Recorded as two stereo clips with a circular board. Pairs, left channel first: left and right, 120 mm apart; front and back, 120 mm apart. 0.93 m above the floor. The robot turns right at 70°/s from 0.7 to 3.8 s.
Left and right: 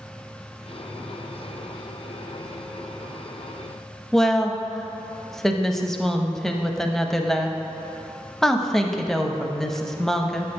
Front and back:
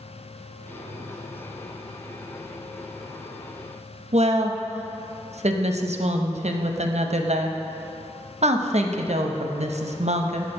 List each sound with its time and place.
4.1 s a woman speaking: 175° left, 0.7 m